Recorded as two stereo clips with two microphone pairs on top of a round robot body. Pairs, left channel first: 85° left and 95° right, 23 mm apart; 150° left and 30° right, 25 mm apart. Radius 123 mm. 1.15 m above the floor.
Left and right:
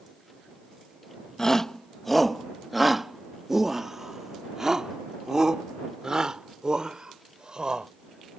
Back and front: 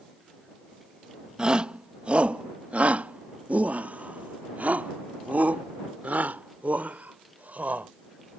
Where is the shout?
20° left; by 7.9 s 40° right.